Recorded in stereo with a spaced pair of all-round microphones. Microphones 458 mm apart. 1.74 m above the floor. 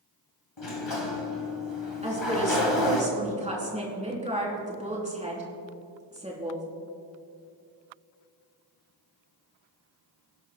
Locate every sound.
0.6 s a sliding door: 70° left (ahead or behind), 1.4 m
2.0 s a woman speaking: 15° right (ahead or behind), 3.5 m